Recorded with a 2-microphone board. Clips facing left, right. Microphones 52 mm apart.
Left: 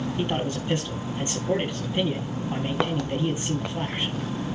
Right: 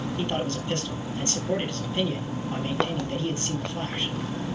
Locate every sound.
0.2 s a man speaking: 15° left (ahead or behind), 4.5 m